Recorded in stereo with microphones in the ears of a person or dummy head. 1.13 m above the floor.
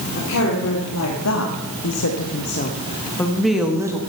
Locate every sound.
0.1 s a woman speaking: 65° left (ahead or behind), 3 m; by 4.0 s 10° right (ahead or behind), 1.5 m